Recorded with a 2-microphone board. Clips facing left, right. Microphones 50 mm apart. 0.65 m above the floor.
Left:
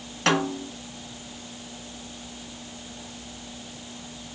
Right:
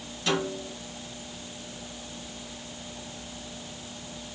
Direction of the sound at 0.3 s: 65° left (ahead or behind).